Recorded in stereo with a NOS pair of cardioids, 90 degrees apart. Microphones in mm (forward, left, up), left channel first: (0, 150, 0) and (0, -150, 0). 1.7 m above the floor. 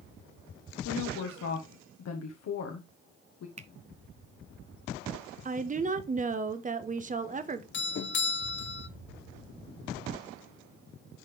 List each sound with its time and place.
0.8 s a woman speaking: 60° left, 1.4 m
3.6 s a finger snap: 20° right, 0.8 m
5.5 s a woman speaking: 25° right, 1.1 m
7.7 s a doorbell: 40° left, 0.8 m